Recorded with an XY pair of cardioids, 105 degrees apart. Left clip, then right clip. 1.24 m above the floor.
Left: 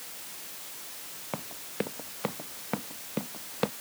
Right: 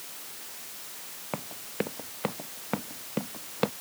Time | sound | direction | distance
1.3 | running footsteps | 5° right | ?